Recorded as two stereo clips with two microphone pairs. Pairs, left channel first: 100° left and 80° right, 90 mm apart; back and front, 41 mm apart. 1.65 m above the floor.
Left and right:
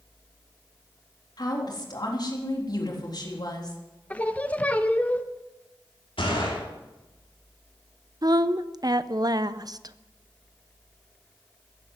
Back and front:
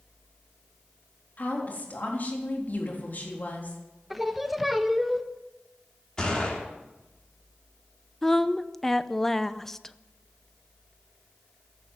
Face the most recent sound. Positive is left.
turn(degrees=-105)